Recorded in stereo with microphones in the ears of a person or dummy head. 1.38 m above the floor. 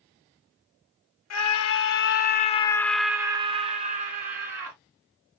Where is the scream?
75° left (ahead or behind), 1.0 m; by 4.8 s 50° right (ahead or behind), 1.4 m.